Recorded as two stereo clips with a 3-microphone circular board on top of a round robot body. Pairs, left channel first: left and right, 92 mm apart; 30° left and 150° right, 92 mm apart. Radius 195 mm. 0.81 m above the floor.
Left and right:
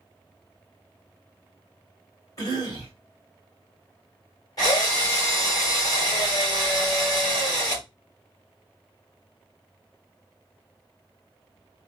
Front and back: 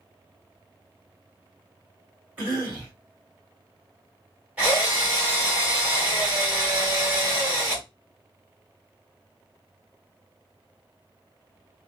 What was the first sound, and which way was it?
A cough, 140° left.